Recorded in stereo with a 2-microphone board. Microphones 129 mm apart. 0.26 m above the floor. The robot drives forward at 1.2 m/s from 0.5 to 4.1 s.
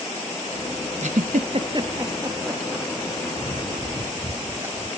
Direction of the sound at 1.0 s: 60° right (ahead or behind).